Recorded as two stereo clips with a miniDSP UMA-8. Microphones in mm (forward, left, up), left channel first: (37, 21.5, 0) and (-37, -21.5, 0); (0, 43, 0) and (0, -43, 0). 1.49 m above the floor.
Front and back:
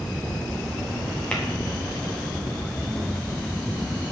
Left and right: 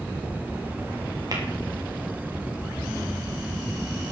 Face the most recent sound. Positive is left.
turn(degrees=-50)